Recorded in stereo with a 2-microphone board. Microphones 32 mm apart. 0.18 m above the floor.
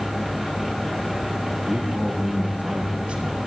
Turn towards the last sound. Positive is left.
turn(degrees=-40)  # may be behind; listen again after turning